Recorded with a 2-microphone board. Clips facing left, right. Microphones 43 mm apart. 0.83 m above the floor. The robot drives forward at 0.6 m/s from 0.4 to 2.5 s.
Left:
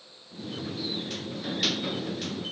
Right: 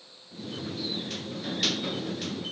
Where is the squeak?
I don't hear a squeak.